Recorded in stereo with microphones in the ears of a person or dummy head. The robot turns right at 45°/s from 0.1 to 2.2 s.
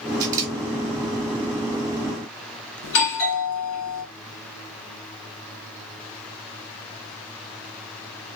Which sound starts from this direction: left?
A doorbell, at 2.8 s.